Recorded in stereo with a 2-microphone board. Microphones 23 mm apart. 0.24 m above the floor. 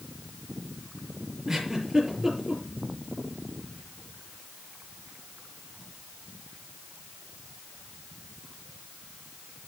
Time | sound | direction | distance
1.5 | a giggle | 25° right (ahead or behind) | 5 m